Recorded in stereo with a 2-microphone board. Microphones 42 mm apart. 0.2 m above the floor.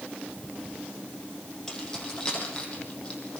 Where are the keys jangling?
15° left (ahead or behind), 5 m; by 3.4 s 25° left (ahead or behind), 5 m.